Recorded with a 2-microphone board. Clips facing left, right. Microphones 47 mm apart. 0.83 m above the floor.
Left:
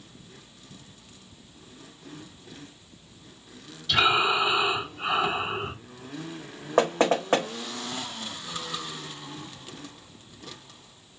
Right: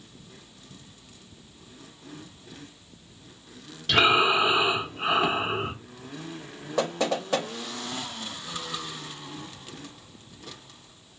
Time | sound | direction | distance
3.9 | breathing | 60° right (ahead or behind) | 1.2 m
6.8 | knocking | 40° left (ahead or behind) | 0.7 m